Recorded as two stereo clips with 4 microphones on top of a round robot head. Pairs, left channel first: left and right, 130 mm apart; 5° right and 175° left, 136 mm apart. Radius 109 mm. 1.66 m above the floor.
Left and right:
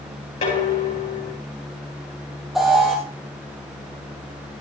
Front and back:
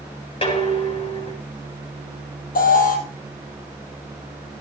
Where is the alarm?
Straight ahead, 3 m.